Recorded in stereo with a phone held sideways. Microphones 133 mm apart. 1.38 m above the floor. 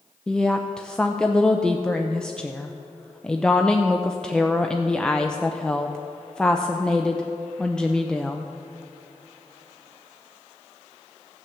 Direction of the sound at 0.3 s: 5° left (ahead or behind).